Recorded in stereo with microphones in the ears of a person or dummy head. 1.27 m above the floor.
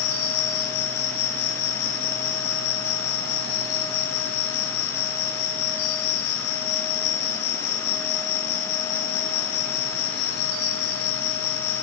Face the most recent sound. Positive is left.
turn(degrees=55)  # may be behind; listen again after turning